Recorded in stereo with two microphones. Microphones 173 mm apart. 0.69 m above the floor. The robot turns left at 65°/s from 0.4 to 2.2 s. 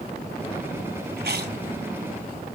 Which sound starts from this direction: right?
Chewing, at 1.2 s.